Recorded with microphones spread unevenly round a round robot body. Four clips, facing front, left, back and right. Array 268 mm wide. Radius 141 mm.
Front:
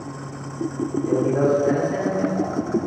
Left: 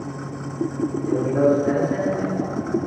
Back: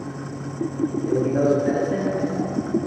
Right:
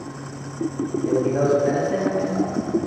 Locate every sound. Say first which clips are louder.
1.1 s a man speaking: left 1 dB, front 1 dB; 105° right, 0.9 m